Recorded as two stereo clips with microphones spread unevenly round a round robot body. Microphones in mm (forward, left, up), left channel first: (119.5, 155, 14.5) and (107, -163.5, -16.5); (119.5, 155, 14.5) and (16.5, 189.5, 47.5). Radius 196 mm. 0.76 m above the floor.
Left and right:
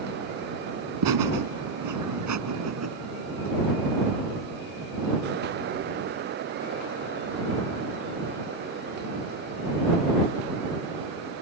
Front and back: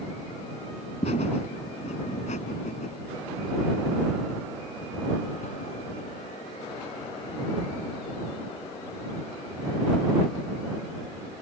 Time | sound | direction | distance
1.0 | laughter | 75° right | ?